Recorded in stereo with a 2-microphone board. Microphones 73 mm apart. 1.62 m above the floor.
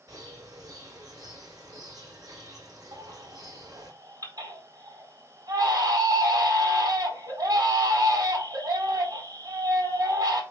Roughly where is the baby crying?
Right.